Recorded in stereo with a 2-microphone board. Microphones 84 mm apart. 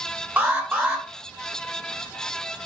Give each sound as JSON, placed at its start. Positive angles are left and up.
{"t": 0.4, "sound": "an alarm", "side_deg": -20, "distance_m": 0.6}